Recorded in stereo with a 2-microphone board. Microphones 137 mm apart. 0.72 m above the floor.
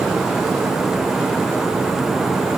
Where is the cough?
No cough in this recording.